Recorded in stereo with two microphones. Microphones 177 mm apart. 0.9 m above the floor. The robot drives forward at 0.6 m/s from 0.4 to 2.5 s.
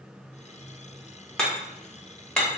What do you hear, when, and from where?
1.4 s hammering: 5° left (ahead or behind), 1.0 m